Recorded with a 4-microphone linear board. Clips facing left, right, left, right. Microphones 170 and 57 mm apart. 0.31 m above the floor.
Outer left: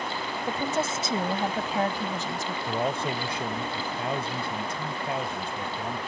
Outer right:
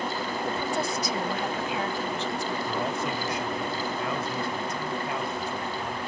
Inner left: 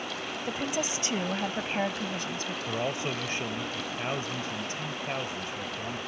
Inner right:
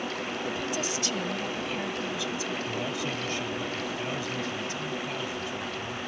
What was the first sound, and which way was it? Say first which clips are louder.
A woman speaking: outer left 2 dB, inner left 2 dB; 15° left (ahead or behind).